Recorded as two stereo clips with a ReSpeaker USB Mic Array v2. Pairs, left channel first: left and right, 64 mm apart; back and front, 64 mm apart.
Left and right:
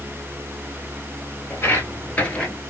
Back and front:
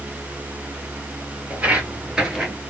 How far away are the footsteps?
About 1.6 m.